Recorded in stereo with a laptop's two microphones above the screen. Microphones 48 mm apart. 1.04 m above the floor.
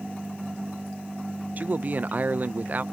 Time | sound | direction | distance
1.6 | a man speaking | 40° right (ahead or behind) | 0.6 m